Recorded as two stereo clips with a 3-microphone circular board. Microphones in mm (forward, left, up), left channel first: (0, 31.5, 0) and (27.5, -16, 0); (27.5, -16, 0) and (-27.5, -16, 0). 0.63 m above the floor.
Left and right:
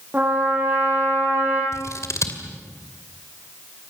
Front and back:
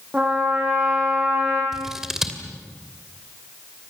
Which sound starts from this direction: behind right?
A trumpet, at 0.1 s.